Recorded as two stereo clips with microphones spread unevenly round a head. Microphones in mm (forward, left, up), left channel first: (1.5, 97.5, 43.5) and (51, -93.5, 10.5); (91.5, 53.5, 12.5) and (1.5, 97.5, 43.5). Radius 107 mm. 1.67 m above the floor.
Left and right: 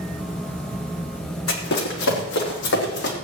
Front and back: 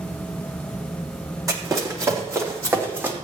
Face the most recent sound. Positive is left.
turn(degrees=95)